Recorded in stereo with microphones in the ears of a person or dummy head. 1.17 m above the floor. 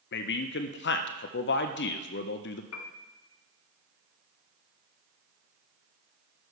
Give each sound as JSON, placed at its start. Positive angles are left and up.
{"t": 0.1, "sound": "a man speaking", "side_deg": 55, "distance_m": 0.6}
{"t": 2.7, "sound": "a piano", "side_deg": 80, "distance_m": 0.6}